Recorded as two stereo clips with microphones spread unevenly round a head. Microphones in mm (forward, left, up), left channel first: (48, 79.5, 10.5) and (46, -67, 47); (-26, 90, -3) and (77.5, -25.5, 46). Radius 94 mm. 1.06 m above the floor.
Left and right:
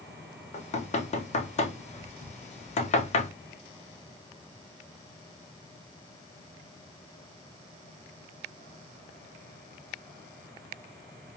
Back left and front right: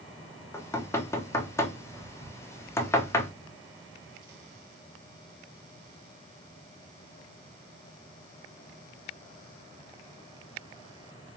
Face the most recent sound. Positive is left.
turn(degrees=70)